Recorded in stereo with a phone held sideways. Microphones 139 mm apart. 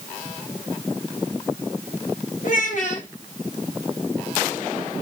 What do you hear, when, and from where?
2.4 s a child speaking: 60° left (ahead or behind), 1.1 m